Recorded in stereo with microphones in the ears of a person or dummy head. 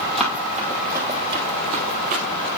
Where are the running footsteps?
Centre (ahead or behind), 2 m; by 2.2 s 45° right (ahead or behind), 1.7 m.